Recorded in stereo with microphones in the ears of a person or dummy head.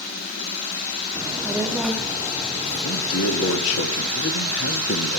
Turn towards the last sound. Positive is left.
turn(degrees=80)